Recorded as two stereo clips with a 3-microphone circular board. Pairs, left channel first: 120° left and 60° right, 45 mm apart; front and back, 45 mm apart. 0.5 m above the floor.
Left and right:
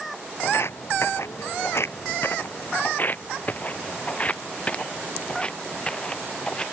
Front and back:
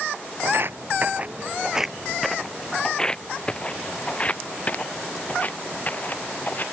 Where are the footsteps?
150° left; by 6.6 s 50° left.